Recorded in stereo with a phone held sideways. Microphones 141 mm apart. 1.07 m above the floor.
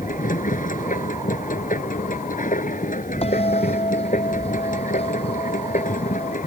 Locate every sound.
0.0 s a machine running: 70° left (ahead or behind)
3.2 s a bell: 45° left (ahead or behind)